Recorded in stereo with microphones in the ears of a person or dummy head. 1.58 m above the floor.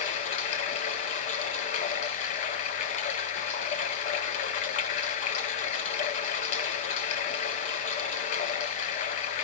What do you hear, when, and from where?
0.0 s running water: 45° left (ahead or behind), 1.5 m